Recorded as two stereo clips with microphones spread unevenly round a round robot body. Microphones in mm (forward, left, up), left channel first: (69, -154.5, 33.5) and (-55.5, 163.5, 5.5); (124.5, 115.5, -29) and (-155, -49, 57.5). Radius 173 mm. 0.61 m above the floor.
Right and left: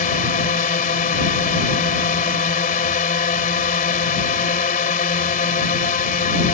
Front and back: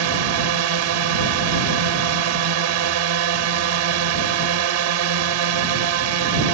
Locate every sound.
0.0 s a drone: 135° right